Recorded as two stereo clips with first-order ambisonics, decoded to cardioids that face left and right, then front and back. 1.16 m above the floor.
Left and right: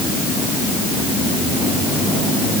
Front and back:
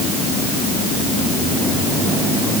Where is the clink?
No clink in this recording.